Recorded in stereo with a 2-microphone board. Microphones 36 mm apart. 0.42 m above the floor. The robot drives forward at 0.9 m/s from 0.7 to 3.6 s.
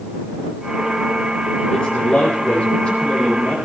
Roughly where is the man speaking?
Left.